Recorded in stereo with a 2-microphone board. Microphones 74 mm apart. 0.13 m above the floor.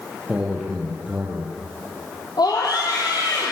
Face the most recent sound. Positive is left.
turn(degrees=70)  # may be behind; listen again after turning